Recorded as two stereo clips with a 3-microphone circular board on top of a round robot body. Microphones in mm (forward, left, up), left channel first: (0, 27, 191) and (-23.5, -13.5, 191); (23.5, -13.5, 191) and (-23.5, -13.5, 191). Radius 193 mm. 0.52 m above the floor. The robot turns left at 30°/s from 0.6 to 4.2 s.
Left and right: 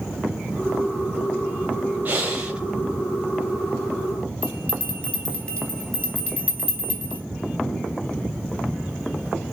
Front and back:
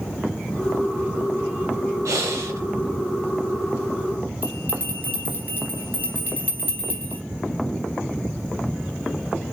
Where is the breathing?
175° right, 0.6 m; by 2.6 s 165° left, 0.6 m.